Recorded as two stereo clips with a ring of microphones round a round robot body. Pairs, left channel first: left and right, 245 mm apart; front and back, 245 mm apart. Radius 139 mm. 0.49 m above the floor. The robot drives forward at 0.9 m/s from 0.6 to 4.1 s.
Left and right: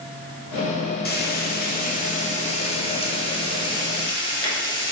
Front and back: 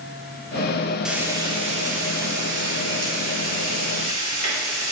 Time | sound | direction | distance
1.1 | frying | 95° left | 1.4 m